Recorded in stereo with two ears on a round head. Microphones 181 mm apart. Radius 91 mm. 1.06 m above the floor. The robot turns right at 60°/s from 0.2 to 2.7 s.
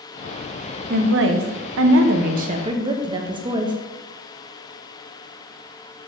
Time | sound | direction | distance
0.9 | a woman speaking | 130° right | 0.6 m